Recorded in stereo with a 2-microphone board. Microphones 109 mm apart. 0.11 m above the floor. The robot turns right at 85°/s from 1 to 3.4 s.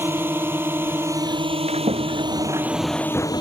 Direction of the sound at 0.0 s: 160° right.